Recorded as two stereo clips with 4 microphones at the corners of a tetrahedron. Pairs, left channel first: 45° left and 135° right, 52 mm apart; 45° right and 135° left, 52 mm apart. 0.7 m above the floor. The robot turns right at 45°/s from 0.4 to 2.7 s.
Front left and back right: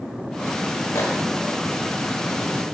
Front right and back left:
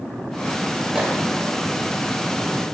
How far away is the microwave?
About 1.6 m.